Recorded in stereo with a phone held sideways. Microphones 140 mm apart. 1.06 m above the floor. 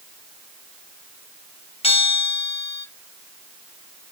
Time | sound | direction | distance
1.8 | a bell | 40° left (ahead or behind) | 1.4 m